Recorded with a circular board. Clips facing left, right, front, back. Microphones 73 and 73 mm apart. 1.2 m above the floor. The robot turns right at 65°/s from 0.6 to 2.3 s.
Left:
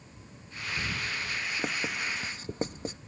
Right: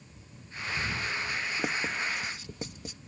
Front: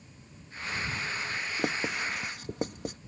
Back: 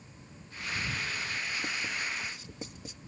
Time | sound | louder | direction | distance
1.6 | writing | right 2 dB, front 4 dB | 10° right | ?